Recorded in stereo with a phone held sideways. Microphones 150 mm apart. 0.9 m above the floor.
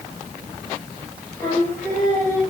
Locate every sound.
1.4 s singing: 15° left (ahead or behind), 6.5 m